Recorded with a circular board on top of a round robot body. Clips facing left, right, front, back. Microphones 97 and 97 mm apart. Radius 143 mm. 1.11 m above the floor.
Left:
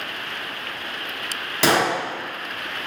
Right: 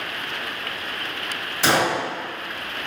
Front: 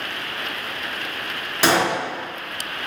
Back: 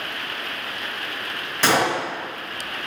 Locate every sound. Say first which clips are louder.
1.6 s a gunshot: left 1 dB, front 1 dB; 80° left, 0.7 m